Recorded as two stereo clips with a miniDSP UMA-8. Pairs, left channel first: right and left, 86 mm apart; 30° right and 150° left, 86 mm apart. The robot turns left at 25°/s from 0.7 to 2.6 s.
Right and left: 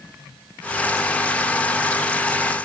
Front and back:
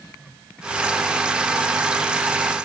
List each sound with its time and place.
Only background noise.